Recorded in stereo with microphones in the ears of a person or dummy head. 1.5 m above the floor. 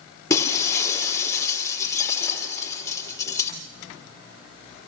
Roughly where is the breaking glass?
Centre.